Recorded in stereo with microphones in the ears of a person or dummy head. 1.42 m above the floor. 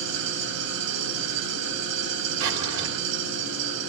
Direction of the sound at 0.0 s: 65° right (ahead or behind).